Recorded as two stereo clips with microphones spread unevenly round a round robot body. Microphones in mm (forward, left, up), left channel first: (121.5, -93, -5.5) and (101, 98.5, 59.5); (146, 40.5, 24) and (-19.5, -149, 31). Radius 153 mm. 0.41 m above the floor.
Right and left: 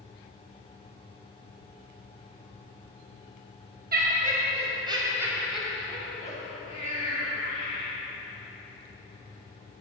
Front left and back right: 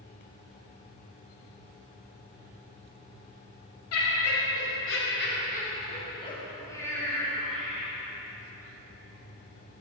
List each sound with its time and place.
3.9 s laughter: 50° left, 2 m; by 7.9 s 40° right, 3.5 m